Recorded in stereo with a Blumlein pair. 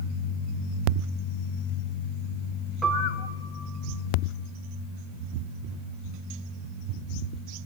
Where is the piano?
10° right, 0.8 m.